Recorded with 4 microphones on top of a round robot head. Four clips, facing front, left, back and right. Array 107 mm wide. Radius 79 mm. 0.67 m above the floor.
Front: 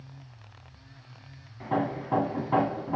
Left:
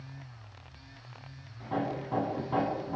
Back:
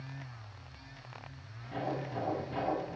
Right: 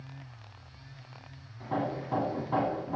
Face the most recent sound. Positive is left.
turn(degrees=-10)